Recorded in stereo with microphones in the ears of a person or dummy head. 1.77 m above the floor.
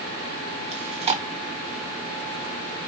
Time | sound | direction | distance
0.7 | chewing | 30° right (ahead or behind) | 0.8 m